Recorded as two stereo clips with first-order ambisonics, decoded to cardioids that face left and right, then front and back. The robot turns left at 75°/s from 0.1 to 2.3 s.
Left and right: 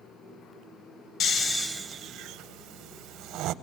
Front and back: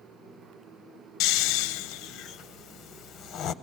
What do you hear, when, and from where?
1.2 s snoring: 35° left, 0.6 m; by 3.5 s 50° right, 0.6 m